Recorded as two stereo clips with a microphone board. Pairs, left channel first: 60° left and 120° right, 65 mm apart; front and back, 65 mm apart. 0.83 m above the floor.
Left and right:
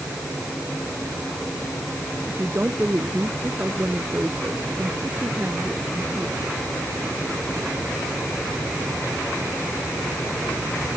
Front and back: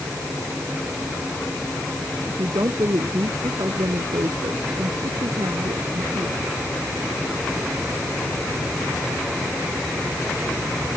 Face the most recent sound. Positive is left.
turn(degrees=175)